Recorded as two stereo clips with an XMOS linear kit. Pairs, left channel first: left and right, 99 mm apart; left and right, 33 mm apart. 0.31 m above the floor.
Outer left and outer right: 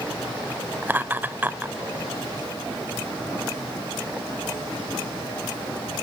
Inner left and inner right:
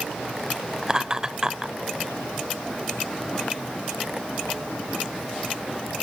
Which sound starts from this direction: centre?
Laughter, at 0.8 s.